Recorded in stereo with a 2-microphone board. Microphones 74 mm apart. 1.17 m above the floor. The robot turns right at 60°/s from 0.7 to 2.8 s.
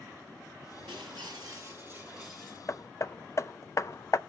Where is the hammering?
40° left (ahead or behind), 0.6 m; by 4.2 s 45° left (ahead or behind), 0.6 m.